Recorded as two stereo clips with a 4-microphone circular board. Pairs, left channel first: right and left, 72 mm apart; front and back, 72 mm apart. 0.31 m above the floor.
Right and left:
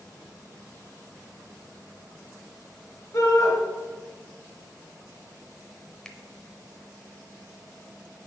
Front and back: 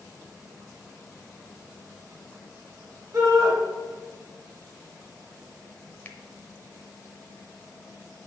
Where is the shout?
135° right, 3.5 m.